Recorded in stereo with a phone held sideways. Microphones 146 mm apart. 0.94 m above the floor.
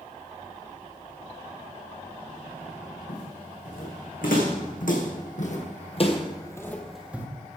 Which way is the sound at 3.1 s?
75° left (ahead or behind).